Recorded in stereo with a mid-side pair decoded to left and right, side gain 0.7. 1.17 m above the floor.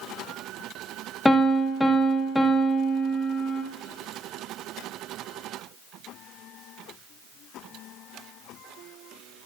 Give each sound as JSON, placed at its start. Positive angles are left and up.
{"t": 1.2, "sound": "a piano", "azimuth_deg": 5, "distance_m": 0.8}